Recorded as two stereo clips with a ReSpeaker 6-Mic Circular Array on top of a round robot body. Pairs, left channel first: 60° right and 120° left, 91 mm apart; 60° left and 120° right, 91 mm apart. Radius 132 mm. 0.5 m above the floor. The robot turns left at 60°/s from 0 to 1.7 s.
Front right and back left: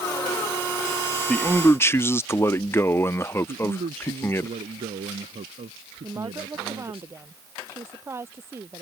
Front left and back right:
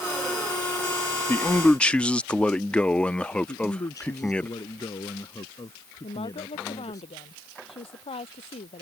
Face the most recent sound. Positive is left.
turn(degrees=55)